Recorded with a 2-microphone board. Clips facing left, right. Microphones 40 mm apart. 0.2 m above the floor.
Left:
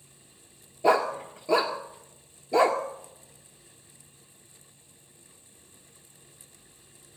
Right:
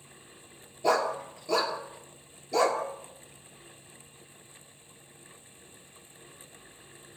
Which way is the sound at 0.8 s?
25° left (ahead or behind).